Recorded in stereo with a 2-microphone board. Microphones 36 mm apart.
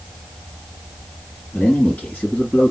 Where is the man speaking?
35° left (ahead or behind), 2 m.